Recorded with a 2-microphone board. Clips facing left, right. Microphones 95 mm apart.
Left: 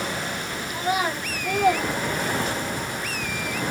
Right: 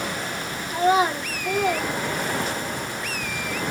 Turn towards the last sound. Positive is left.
turn(degrees=40)  # may be behind; listen again after turning